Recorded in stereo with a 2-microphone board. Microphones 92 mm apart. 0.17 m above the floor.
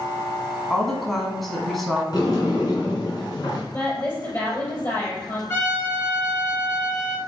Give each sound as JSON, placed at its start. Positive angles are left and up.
{"t": 0.7, "sound": "a woman speaking", "side_deg": 0, "distance_m": 1.3}
{"t": 2.1, "sound": "a sliding door", "side_deg": 45, "distance_m": 2.0}
{"t": 3.7, "sound": "a woman speaking", "side_deg": 25, "distance_m": 3.5}
{"t": 5.5, "sound": "a trumpet", "side_deg": 25, "distance_m": 2.0}